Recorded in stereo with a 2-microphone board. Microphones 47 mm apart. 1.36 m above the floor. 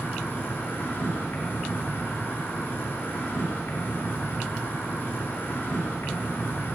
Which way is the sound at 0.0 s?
50° left (ahead or behind).